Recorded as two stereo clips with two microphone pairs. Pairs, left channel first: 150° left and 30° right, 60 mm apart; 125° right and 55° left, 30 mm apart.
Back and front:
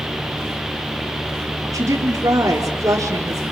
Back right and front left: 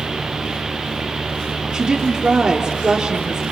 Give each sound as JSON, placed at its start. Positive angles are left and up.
{"t": 1.7, "sound": "a woman speaking", "azimuth_deg": 10, "distance_m": 4.0}